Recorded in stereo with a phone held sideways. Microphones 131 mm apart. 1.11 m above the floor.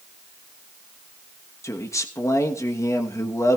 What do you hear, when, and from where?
1.6 s a man speaking: 25° left (ahead or behind), 1.2 m